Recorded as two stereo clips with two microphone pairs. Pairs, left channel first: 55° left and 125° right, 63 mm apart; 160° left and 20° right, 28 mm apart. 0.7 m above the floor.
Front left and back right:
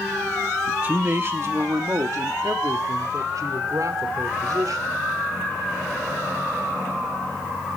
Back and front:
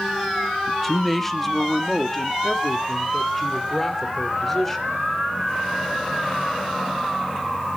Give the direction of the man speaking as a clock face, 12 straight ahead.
4 o'clock.